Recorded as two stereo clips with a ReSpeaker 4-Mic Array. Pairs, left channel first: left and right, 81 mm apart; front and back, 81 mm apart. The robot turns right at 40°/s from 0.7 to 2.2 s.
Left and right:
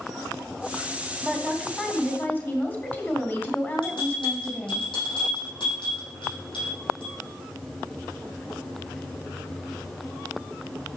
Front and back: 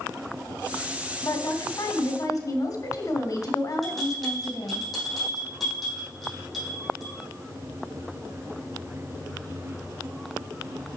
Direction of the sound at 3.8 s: 90° left.